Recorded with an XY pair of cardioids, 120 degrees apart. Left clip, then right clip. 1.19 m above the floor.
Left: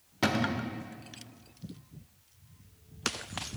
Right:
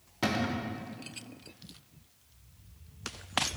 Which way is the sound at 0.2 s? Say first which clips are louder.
Left 2 dB; 15° left.